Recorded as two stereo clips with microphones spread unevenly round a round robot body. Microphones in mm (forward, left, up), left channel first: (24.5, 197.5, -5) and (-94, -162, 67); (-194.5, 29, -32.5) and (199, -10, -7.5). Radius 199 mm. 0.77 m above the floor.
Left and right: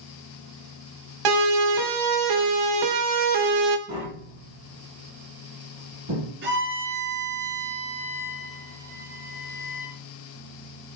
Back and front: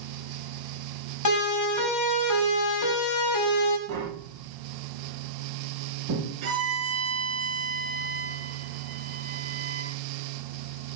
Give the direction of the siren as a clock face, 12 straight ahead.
5 o'clock.